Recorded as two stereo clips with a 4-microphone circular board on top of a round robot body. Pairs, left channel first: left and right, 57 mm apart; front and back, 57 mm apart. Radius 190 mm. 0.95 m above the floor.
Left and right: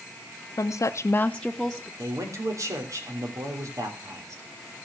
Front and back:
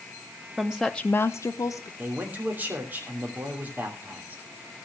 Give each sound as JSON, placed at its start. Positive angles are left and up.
{"t": 0.6, "sound": "a woman speaking", "azimuth_deg": 105, "distance_m": 1.0}
{"t": 2.0, "sound": "a man speaking", "azimuth_deg": -120, "distance_m": 3.0}